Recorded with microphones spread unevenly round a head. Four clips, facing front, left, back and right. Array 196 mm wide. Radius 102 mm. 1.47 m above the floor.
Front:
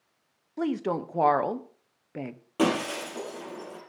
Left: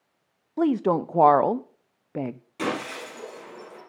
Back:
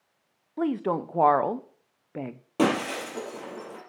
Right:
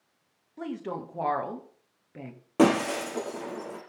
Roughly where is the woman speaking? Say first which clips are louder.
Left 13 dB, back 2 dB; left.